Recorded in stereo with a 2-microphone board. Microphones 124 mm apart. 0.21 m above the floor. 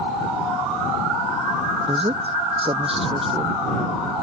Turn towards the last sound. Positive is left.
turn(degrees=-50)  # may be behind; listen again after turning